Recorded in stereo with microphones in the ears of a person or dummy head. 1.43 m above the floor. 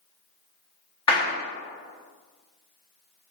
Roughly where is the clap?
Left.